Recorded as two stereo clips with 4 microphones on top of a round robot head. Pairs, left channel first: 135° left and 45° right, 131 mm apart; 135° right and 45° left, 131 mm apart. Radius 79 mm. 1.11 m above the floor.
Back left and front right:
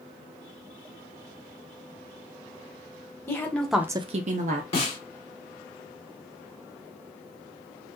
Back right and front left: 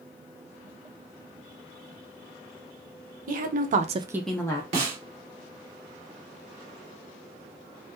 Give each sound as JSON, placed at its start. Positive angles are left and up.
{"t": 3.3, "sound": "a woman speaking", "azimuth_deg": 65, "distance_m": 1.1}
{"t": 4.7, "sound": "a snare drum", "azimuth_deg": 85, "distance_m": 1.9}